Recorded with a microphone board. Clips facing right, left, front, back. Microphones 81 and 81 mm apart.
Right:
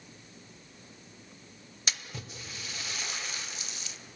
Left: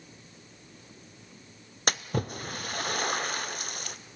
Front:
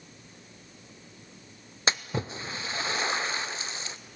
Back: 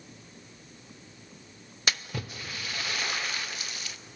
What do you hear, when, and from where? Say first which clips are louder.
1.9 s a splash: left 11 dB, front 4 dB; 60° left, 0.6 m